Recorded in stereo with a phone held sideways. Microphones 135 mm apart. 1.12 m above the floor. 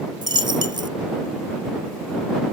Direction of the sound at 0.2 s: 35° right (ahead or behind).